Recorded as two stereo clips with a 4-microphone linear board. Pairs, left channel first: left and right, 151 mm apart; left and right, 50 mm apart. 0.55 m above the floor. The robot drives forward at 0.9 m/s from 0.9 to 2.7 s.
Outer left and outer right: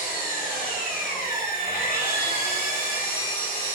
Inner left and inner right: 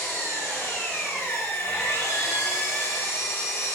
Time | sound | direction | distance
0.0 | an engine running | 60° left (ahead or behind) | 3.5 m
1.2 | a squeak | 65° left (ahead or behind) | 3 m